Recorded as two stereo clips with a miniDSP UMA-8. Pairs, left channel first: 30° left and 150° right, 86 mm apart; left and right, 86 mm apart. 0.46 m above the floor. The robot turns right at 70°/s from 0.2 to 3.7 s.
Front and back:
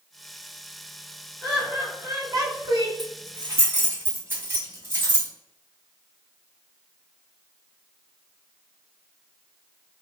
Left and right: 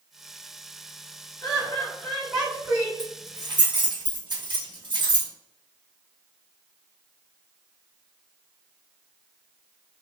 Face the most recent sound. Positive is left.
turn(degrees=-90)